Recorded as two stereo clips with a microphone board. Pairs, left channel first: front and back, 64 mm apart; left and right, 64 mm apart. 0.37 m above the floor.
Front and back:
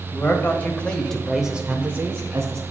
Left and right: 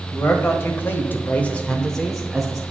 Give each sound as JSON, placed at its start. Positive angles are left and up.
{"t": 0.1, "sound": "a man speaking", "azimuth_deg": 50, "distance_m": 1.6}